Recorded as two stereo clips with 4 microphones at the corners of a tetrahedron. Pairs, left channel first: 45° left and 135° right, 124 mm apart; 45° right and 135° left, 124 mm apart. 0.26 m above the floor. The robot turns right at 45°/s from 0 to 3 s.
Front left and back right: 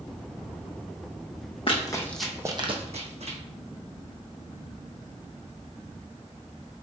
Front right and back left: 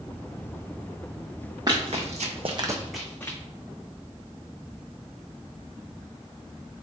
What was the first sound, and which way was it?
Running footsteps, 80° left.